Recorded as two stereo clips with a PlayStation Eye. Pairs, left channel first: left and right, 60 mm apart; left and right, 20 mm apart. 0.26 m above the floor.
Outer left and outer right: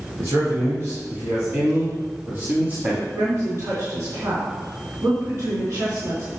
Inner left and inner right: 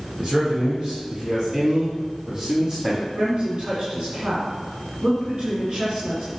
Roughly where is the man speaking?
Right.